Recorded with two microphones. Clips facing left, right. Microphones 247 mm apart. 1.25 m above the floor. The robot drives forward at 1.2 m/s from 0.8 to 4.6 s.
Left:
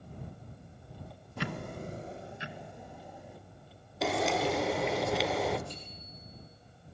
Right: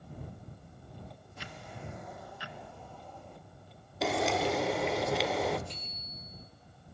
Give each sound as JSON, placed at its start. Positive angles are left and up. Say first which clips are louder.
{"t": 1.4, "sound": "ticking", "louder": "left 10 dB", "side_deg": 70, "distance_m": 0.5}
{"t": 4.0, "sound": "frying", "louder": "even", "side_deg": 0, "distance_m": 1.1}
{"t": 5.7, "sound": "a bicycle bell", "louder": "left 1 dB", "side_deg": -80, "distance_m": 8.5}